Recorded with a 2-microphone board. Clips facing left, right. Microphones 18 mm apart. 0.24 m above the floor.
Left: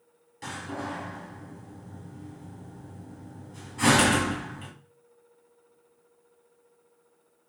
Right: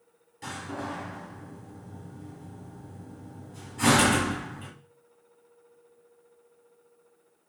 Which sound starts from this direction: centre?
A door slam, at 0.4 s.